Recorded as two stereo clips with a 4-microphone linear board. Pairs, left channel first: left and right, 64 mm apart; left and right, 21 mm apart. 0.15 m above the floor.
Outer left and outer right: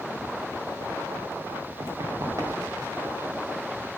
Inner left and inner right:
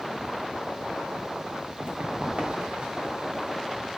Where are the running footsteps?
60° right (ahead or behind), 2.5 m; by 3.0 s 65° right (ahead or behind), 3 m.